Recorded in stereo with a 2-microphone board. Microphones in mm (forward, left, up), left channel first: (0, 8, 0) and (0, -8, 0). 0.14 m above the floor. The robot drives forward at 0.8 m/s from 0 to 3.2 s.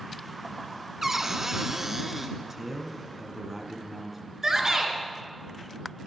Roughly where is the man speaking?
Right.